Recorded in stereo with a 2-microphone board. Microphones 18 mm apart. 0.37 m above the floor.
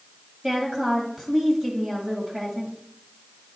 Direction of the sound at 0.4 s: 40° right (ahead or behind).